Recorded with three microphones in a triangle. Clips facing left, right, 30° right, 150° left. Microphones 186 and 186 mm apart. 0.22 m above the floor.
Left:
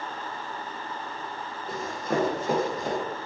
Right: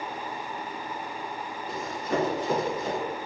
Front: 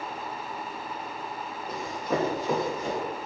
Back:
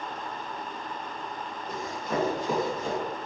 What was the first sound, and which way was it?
Running footsteps, 50° left.